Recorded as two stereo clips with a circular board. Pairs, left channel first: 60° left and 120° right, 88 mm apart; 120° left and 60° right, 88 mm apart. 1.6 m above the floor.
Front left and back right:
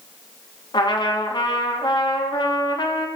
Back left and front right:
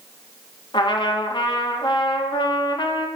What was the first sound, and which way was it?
A trumpet, 90° left.